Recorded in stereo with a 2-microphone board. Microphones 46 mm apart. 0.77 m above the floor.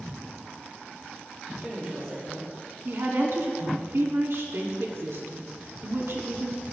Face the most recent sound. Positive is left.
turn(degrees=-60)  # may be behind; listen again after turning